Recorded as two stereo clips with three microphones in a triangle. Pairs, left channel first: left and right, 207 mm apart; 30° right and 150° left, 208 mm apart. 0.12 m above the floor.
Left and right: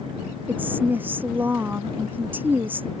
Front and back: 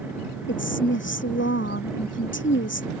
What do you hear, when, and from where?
0.5 s a woman speaking: 10° right